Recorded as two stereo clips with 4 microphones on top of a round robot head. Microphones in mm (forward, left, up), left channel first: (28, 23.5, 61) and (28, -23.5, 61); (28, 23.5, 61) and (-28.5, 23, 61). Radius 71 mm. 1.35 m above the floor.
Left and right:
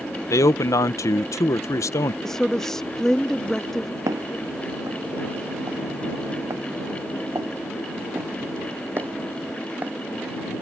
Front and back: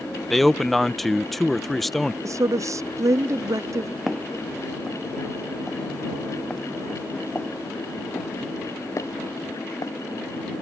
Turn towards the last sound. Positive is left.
turn(degrees=-35)